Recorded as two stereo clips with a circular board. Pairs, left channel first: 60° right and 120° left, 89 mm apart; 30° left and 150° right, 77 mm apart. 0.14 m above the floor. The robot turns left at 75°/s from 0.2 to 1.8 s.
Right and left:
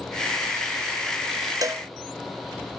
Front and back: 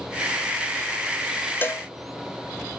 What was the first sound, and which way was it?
A cowbell, 85° left.